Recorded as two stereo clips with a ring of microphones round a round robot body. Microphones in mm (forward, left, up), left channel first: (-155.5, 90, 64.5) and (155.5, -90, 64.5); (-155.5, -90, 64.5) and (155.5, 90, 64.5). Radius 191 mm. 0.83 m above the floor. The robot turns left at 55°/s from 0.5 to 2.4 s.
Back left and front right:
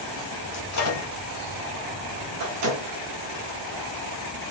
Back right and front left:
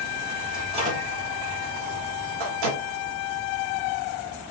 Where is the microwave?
120° left, 1.4 m; by 2.9 s 15° left, 1.4 m.